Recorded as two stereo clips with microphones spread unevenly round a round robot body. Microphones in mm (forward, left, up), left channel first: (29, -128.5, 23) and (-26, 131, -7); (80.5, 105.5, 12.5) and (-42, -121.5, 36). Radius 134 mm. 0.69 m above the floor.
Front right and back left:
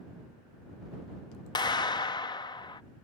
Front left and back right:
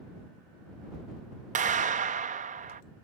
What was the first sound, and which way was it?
A clap, 145° right.